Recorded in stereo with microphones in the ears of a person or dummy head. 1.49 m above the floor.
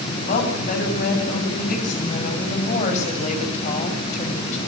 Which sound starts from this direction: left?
A woman speaking, at 0.3 s.